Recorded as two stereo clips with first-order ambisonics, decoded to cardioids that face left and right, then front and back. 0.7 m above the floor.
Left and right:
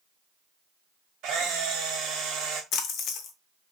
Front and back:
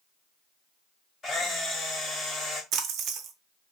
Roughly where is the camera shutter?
Ahead right.